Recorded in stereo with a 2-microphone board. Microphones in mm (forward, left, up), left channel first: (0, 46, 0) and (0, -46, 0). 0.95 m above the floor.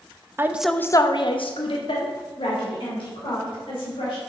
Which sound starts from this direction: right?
A woman speaking, at 0.4 s.